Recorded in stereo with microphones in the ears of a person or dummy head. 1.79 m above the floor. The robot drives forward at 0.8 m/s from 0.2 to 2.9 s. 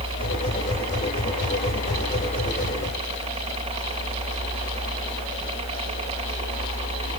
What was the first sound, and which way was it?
A helicopter, 25° right (ahead or behind).